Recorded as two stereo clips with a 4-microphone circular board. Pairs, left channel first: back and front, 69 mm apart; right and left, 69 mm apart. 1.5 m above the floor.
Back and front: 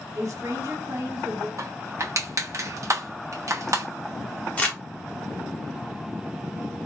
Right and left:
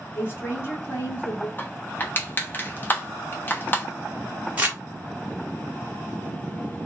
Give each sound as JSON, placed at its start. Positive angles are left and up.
{"t": 0.1, "sound": "a woman speaking", "azimuth_deg": -35, "distance_m": 1.5}
{"t": 1.6, "sound": "crushing", "azimuth_deg": -30, "distance_m": 1.0}
{"t": 4.6, "sound": "crumpling", "azimuth_deg": 135, "distance_m": 1.3}